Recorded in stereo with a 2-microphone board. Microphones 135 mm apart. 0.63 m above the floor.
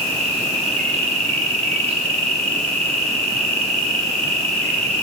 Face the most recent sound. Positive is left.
turn(degrees=-50)  # may be behind; listen again after turning